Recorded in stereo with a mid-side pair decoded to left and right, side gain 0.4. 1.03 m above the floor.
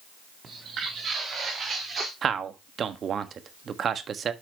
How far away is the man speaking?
About 1.3 m.